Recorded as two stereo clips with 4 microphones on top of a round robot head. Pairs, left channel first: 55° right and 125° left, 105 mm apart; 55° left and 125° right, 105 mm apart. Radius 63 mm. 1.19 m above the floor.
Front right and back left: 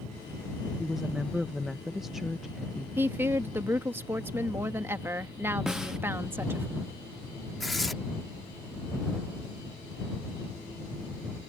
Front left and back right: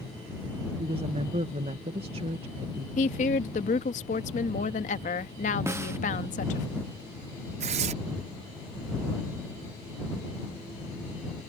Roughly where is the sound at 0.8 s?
Behind right.